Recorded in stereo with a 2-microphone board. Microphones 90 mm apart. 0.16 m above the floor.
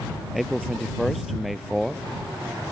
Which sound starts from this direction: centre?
A man speaking, at 0.3 s.